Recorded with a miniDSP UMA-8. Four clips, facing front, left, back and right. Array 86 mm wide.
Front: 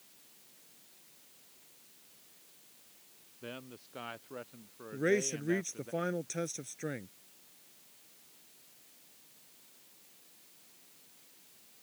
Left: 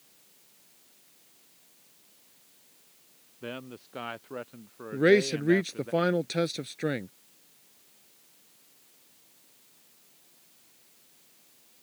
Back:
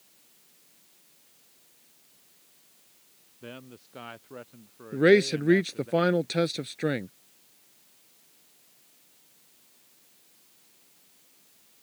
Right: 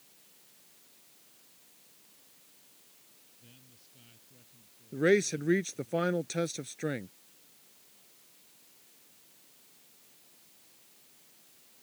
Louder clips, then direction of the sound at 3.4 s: Left 24 dB, back 2 dB; 95° left.